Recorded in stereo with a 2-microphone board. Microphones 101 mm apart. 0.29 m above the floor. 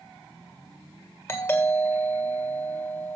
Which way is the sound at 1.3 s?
25° left (ahead or behind).